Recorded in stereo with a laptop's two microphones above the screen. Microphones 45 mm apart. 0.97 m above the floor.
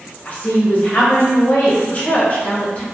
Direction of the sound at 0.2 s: 35° left (ahead or behind).